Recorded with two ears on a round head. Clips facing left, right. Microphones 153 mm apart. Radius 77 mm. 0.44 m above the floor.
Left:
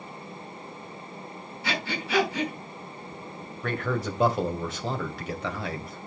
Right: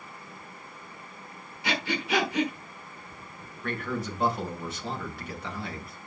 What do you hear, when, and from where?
1.6 s breathing: 15° right (ahead or behind), 5.5 m
3.6 s a man speaking: 60° left (ahead or behind), 2.5 m